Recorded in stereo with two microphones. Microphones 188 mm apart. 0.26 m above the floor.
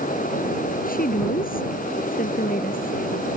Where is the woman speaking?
50° left (ahead or behind).